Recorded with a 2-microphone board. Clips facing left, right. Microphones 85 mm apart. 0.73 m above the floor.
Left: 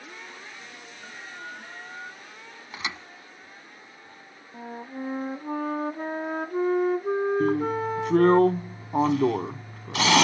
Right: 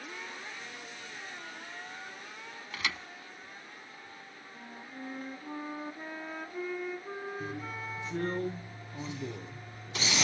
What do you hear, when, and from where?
1.0 s an alarm: 45° left (ahead or behind)
2.7 s a thud: 25° left (ahead or behind)
4.5 s a flute: 55° left (ahead or behind)
7.4 s a drill: 85° left